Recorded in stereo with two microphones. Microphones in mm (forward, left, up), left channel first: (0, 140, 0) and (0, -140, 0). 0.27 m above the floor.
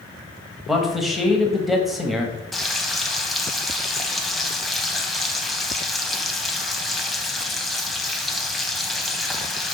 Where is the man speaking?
Centre (ahead or behind), 1.1 m.